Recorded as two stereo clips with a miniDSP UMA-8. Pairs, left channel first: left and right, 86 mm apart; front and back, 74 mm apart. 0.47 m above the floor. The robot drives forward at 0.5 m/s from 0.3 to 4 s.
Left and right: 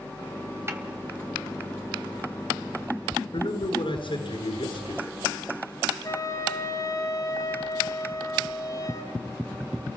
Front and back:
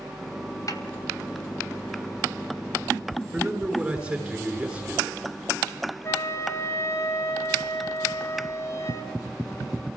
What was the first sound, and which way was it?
A snare drum, 30° right.